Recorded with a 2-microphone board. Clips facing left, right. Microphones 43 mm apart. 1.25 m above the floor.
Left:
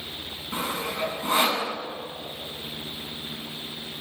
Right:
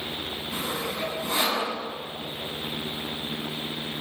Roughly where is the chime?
No chime in this recording.